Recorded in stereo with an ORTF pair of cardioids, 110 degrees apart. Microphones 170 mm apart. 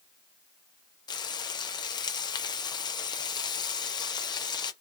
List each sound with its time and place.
1.1 s frying: 25° left, 0.6 m